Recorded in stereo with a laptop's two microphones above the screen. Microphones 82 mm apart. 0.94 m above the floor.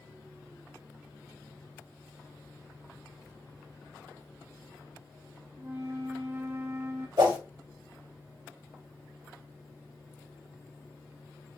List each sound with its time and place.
5.6 s a flute: 30° right (ahead or behind), 0.7 m
7.2 s a whoosh: 65° right (ahead or behind), 1.7 m